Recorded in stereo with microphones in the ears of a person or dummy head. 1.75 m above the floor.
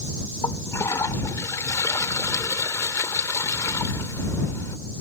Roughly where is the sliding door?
No sliding door in this recording.